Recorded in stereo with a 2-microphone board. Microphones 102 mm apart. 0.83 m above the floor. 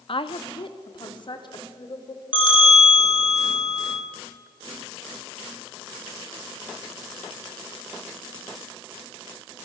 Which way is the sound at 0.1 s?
55° left (ahead or behind).